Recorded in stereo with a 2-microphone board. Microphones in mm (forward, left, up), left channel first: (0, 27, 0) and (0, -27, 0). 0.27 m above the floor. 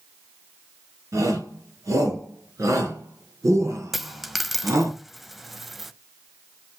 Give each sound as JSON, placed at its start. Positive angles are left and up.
{"t": 1.1, "sound": "a shout", "side_deg": -70, "distance_m": 4.5}
{"t": 3.9, "sound": "a dropped coin", "side_deg": 0, "distance_m": 0.5}